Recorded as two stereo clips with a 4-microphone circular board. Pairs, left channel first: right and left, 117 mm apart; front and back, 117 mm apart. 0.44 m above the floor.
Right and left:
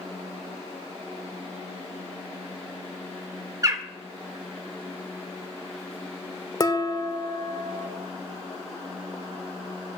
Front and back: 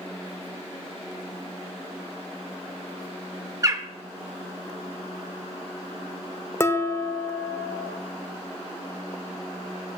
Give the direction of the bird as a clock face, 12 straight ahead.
8 o'clock.